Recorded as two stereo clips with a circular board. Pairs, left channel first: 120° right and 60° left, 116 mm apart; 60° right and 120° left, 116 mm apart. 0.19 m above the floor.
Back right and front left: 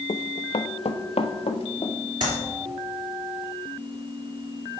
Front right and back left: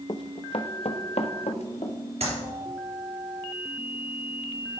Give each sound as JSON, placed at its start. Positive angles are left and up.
{"t": 0.1, "sound": "running footsteps", "azimuth_deg": -100, "distance_m": 0.6}
{"t": 2.2, "sound": "a clap", "azimuth_deg": 105, "distance_m": 3.0}